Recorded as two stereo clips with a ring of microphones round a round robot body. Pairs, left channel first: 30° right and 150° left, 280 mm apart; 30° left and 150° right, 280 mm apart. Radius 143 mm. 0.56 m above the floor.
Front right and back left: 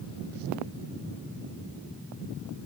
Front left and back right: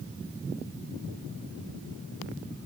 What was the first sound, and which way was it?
Only background noise.